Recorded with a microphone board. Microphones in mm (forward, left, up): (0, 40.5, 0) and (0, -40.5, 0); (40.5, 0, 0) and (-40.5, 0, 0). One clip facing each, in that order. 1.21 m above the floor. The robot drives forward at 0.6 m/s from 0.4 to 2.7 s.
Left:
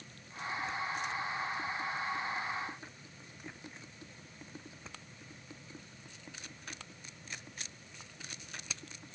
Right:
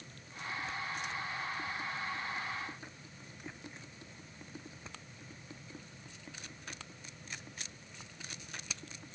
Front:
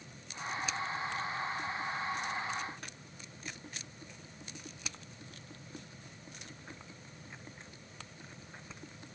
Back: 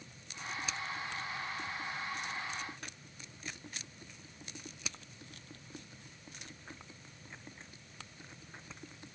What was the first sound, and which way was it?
Only background noise.